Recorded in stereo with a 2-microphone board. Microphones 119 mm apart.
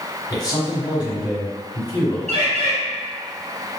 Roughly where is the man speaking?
Left.